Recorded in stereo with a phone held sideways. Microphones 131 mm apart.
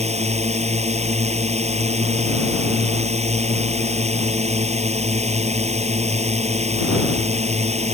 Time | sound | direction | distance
0.0 | a drone | 55° right (ahead or behind) | ?